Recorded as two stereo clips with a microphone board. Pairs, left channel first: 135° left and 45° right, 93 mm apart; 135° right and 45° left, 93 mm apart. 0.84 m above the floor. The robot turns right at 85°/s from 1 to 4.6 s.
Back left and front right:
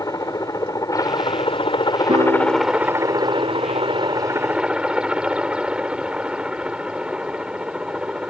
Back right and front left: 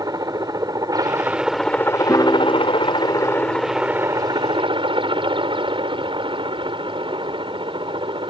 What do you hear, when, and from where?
0.0 s a helicopter: 90° left; by 8.3 s 35° left
2.1 s a piano: 75° right; by 4.1 s 95° left